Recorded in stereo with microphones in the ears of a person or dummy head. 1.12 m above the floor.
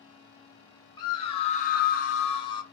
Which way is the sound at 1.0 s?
25° left (ahead or behind).